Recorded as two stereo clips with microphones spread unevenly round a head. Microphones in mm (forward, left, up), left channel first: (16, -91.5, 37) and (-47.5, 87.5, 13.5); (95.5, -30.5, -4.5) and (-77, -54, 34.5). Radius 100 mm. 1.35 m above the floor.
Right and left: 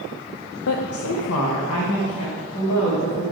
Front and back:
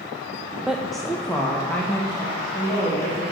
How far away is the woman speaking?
About 0.5 m.